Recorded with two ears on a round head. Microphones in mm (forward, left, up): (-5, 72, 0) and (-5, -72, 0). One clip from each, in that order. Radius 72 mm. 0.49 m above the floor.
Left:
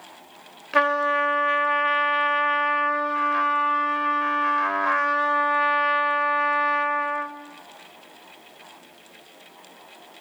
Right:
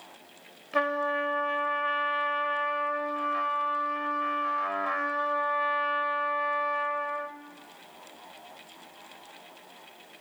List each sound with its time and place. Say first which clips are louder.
0.7 s a trumpet: left 7 dB; 40° left (ahead or behind), 1.0 m